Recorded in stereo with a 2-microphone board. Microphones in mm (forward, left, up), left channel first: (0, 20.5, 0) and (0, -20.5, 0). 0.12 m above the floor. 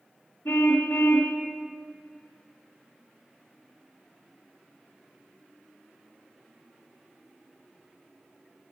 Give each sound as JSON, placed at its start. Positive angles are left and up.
{"t": 0.5, "sound": "a car horn", "side_deg": 80, "distance_m": 5.0}